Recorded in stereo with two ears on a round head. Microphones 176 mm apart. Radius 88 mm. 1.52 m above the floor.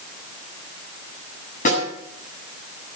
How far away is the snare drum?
About 7.5 m.